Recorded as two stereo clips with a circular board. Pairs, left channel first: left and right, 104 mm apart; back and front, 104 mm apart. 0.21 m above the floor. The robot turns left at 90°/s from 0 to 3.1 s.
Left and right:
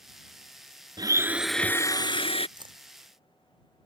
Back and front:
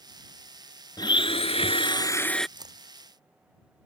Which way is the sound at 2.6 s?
45° right.